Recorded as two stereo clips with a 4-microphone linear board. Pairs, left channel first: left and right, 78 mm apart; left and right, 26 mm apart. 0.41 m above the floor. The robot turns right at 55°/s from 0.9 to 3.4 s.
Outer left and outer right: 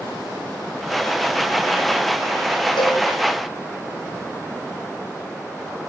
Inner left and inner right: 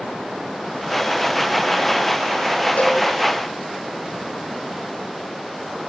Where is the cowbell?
80° left, 2.5 m; by 3.0 s 75° left (ahead or behind), 2.5 m.